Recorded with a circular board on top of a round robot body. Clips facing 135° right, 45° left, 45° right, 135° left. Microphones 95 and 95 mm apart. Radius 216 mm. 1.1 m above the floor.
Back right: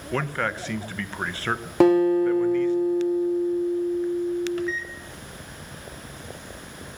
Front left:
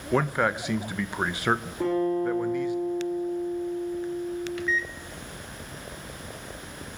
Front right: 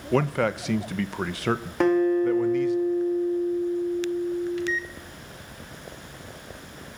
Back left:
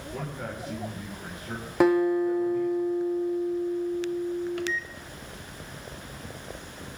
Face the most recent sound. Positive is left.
turn(degrees=175)